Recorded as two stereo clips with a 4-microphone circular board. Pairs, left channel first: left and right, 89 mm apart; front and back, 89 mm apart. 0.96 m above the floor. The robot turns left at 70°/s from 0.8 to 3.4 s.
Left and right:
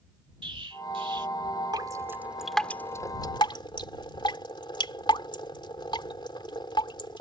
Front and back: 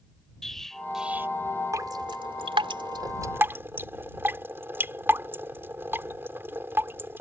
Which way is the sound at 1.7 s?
125° right.